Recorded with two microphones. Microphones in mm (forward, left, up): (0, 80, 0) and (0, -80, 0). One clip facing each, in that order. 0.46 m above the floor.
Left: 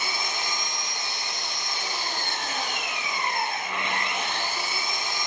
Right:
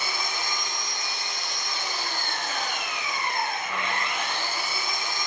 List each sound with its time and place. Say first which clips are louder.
0.0 s an engine running: even; 20° left (ahead or behind), 1.9 m